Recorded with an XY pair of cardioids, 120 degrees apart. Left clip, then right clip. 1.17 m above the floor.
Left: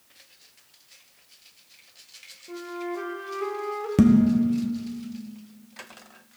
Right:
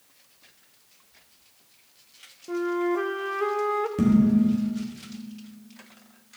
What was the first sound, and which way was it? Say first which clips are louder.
A flute: right 8 dB; 40° right.